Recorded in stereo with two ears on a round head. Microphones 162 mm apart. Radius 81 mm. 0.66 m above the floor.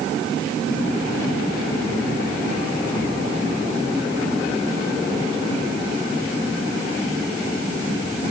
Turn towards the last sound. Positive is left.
No sound to turn to.